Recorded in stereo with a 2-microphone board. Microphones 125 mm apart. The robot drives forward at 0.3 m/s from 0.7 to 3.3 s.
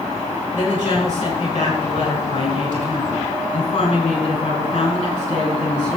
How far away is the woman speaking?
About 5 m.